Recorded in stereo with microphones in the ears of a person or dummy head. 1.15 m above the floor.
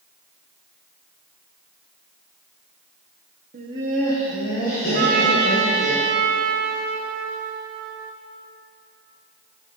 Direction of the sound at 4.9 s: 50° right (ahead or behind).